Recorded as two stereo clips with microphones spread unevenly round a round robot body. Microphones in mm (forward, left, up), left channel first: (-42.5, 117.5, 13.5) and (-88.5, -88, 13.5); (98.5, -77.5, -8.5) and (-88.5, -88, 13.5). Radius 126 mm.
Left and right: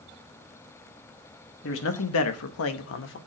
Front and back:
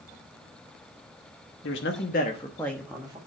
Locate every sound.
1.6 s a man speaking: 35° left, 1.2 m; by 3.2 s 110° left, 1.2 m